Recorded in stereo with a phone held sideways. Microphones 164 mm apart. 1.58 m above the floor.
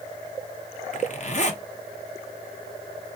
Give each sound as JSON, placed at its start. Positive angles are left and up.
{"t": 0.9, "sound": "a zipper", "side_deg": 45, "distance_m": 1.0}